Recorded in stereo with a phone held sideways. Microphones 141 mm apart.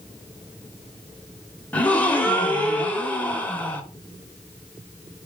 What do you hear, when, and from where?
1.7 s a gasp: 10° left (ahead or behind), 1.1 m